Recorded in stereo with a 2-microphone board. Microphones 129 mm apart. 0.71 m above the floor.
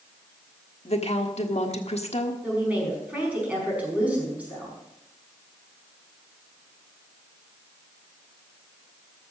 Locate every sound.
0.8 s a woman speaking: 55° left (ahead or behind), 1.4 m
2.4 s a woman speaking: 10° right (ahead or behind), 6 m